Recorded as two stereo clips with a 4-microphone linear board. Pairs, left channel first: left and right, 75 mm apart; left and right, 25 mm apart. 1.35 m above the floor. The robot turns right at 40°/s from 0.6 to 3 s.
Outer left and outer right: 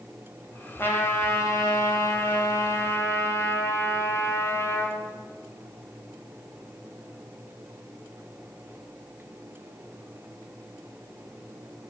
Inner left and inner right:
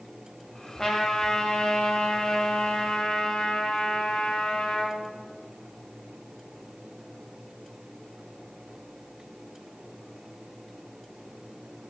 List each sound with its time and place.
0.8 s a trumpet: 40° left, 1.7 m; by 5.0 s 130° left, 1.7 m